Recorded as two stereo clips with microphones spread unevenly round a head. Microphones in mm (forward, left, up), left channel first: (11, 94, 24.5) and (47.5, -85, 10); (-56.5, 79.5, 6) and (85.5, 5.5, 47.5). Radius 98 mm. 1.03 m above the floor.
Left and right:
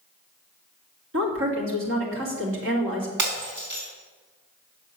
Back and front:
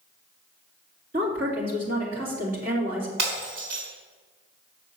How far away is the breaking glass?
About 4 m.